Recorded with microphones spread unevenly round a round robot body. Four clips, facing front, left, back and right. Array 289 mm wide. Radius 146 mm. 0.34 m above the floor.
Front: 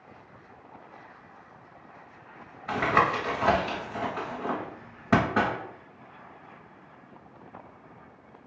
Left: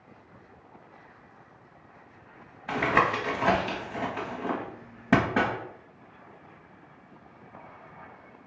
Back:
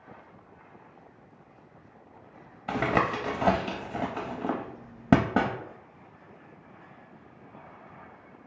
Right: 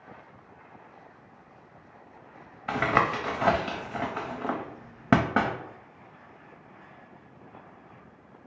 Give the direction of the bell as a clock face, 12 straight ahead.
I don't hear a bell.